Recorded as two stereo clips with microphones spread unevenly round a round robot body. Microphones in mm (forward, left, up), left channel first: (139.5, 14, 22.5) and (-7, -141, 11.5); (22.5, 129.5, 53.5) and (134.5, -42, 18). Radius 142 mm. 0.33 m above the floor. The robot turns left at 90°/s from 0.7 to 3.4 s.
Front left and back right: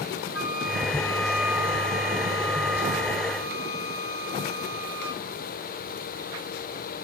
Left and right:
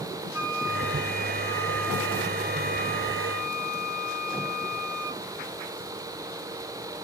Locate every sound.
0.3 s a flute: 15° left, 2.0 m; by 5.2 s 135° left, 2.0 m